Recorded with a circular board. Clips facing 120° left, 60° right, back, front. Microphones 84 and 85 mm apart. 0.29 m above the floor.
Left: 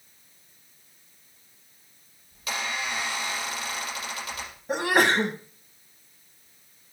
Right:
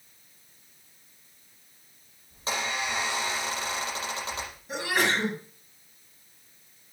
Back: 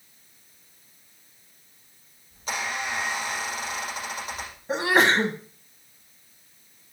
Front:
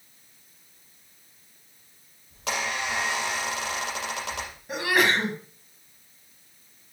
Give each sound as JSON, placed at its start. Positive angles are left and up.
{"t": 2.3, "sound": "a squeak", "azimuth_deg": 0, "distance_m": 6.0}
{"t": 4.7, "sound": "a sneeze", "azimuth_deg": 130, "distance_m": 2.0}